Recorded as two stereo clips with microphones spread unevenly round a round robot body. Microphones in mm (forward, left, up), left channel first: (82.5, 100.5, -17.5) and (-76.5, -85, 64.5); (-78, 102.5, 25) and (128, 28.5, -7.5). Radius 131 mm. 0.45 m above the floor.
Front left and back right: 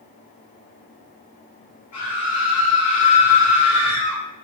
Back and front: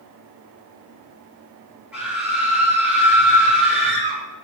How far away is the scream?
About 9.5 m.